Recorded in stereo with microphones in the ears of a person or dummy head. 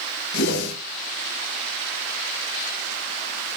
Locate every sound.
0.3 s a whoosh: 65° left (ahead or behind), 6.5 m